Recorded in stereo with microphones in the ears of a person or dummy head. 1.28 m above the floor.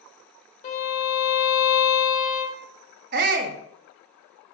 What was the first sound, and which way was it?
A violin, 40° left (ahead or behind).